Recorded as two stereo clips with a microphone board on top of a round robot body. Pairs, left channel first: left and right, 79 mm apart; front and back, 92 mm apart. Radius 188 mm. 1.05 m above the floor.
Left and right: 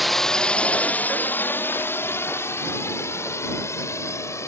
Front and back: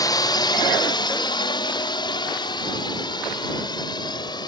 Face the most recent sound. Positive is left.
turn(degrees=40)